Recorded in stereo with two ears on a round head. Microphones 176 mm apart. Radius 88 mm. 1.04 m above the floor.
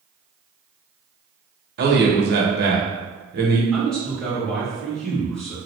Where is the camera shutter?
No camera shutter in this recording.